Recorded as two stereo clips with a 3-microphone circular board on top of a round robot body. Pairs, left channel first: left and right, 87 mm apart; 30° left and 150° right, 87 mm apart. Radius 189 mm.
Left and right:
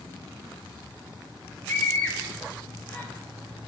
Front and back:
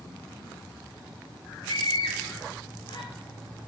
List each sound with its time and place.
1.7 s a scream: 30° left, 1.3 m